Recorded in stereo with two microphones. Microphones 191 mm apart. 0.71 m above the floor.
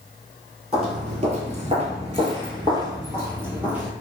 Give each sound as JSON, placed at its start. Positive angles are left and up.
{"t": 0.7, "sound": "footsteps", "side_deg": -35, "distance_m": 1.1}